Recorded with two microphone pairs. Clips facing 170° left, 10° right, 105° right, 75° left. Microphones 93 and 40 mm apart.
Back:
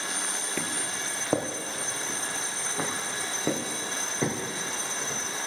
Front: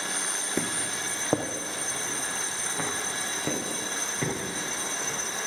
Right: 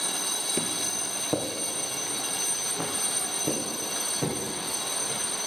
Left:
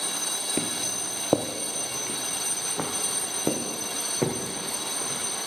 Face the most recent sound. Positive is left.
turn(degrees=100)